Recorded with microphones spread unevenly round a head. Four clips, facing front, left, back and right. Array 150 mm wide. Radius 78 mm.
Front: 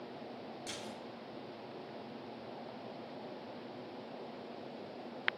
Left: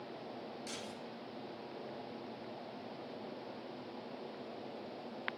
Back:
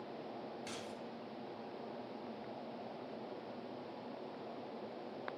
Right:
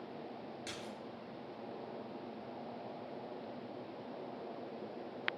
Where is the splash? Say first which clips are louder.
Even, front 1 dB; 75° right, 6 m.